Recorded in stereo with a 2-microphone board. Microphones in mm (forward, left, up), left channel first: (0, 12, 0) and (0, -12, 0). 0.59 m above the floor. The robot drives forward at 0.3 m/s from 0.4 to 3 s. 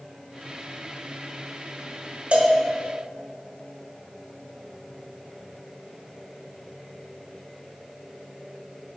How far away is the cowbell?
About 1.3 m.